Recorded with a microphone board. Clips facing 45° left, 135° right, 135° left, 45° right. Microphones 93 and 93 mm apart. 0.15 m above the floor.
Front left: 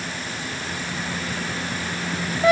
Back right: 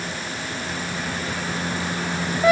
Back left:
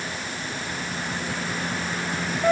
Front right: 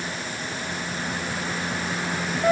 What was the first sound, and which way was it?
Only background noise.